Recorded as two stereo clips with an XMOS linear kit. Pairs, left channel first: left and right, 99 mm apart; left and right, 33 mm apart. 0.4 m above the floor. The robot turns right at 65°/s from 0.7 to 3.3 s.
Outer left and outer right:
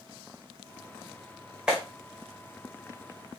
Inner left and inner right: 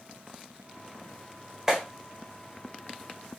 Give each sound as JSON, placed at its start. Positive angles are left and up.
{"t": 1.7, "sound": "a clap", "side_deg": -10, "distance_m": 1.4}